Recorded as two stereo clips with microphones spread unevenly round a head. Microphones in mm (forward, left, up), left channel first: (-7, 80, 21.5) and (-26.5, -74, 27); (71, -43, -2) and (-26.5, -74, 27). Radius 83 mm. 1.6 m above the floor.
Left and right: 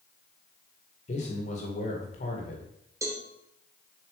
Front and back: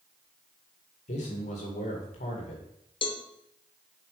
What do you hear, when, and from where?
1.1 s a man speaking: 35° left, 1.8 m
3.0 s a cowbell: 25° right, 1.0 m